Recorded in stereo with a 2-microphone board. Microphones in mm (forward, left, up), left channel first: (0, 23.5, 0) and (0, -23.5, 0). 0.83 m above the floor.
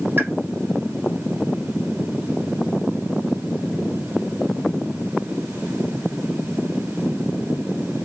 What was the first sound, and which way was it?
A pop, 50° right (ahead or behind).